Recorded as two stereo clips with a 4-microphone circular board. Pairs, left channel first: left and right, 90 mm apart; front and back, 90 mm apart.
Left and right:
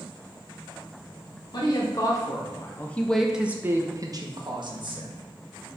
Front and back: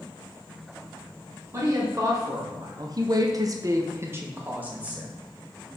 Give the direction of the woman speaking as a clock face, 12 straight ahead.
8 o'clock.